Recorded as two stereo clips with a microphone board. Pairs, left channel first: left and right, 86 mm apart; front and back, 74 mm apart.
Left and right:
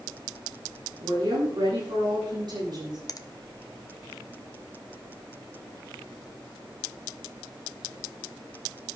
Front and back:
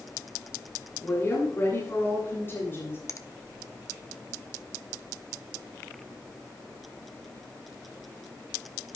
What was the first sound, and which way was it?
A woman speaking, 60° right.